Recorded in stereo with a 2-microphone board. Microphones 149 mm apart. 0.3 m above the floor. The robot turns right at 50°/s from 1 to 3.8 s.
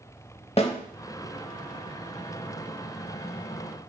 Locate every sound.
0.6 s a snare drum: 40° left (ahead or behind), 0.7 m